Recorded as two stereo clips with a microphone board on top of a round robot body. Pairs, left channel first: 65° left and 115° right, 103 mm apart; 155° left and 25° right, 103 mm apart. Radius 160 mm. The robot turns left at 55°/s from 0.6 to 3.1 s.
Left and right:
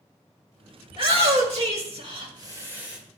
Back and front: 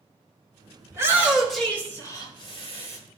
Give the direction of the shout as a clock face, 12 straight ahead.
3 o'clock.